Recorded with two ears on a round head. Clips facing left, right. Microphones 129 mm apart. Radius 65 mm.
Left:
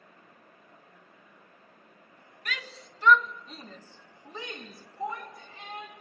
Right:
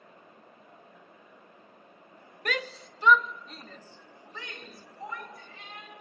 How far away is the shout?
About 1.1 m.